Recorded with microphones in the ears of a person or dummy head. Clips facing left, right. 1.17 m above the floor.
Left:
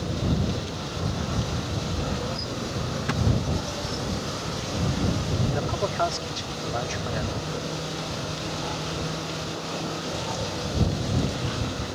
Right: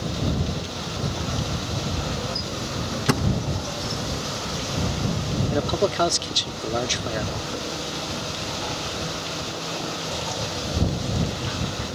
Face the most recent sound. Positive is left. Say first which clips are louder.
# right 5 dB
turn(degrees=-50)  # may be behind; listen again after turning